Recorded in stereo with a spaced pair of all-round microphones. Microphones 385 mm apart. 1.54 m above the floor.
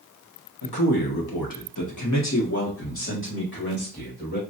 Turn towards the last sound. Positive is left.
turn(degrees=25)  # may be behind; listen again after turning